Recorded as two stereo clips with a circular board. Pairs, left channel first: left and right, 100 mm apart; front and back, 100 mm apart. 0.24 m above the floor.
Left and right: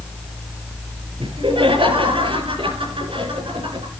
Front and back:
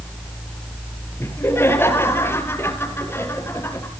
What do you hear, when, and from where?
1.2 s laughter: 65° right, 6 m